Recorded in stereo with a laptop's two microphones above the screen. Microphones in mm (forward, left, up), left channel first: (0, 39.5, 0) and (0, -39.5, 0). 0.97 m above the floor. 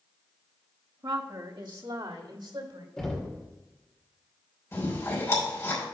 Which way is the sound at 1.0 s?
55° right (ahead or behind).